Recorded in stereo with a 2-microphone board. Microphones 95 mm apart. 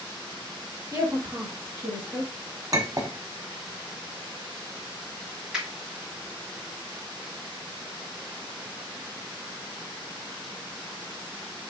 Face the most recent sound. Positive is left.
turn(degrees=-10)  # may be behind; listen again after turning